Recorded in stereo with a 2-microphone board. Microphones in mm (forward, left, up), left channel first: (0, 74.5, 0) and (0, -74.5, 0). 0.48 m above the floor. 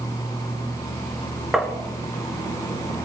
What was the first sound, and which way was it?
Tapping, 5° right (ahead or behind).